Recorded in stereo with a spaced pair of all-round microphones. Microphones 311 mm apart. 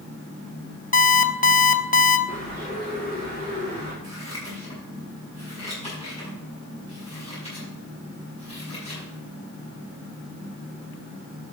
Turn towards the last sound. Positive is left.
turn(degrees=20)  # may be behind; listen again after turning